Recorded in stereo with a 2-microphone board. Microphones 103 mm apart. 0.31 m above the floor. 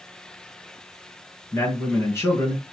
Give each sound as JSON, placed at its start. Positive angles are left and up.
{"t": 1.5, "sound": "a man speaking", "side_deg": 25, "distance_m": 4.5}